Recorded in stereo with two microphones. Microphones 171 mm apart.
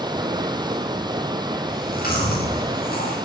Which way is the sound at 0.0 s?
25° right (ahead or behind).